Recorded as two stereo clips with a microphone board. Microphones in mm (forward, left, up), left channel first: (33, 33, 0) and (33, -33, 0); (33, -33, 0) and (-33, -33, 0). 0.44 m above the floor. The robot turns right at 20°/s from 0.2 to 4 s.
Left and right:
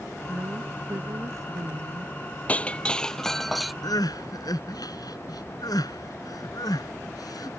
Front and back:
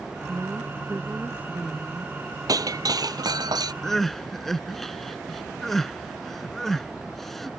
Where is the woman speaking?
140° right; by 2.4 s 100° right.